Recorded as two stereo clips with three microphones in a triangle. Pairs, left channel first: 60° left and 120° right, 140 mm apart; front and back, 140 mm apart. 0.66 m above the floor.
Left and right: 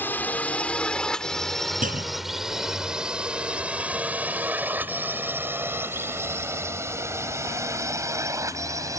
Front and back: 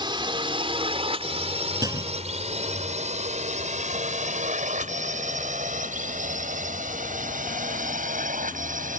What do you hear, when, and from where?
0.0 s a drone: 130° left; by 9.0 s 175° left
1.8 s a clunk: 115° right